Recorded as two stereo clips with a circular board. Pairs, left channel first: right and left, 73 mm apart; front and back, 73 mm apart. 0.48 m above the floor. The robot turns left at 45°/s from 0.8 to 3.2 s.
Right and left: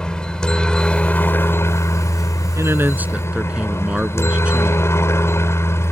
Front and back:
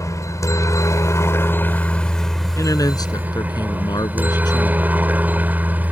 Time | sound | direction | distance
0.0 | a helicopter | 15° right | ?
2.5 | a man speaking | 45° left | ?